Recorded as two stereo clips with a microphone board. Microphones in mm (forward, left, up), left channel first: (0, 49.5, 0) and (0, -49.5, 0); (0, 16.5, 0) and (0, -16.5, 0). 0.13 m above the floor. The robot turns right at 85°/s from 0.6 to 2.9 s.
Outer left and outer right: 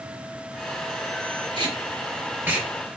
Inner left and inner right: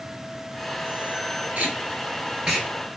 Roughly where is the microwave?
No microwave in this recording.